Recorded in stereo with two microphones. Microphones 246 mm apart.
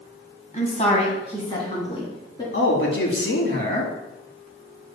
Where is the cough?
I don't hear a cough.